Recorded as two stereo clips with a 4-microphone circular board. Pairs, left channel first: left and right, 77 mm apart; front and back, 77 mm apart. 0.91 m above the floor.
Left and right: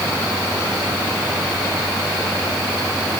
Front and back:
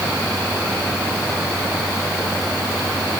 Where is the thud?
I don't hear a thud.